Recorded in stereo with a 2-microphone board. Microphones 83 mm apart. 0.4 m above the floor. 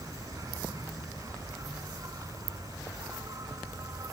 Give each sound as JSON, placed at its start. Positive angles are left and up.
{"t": 0.0, "sound": "an insect", "side_deg": -45}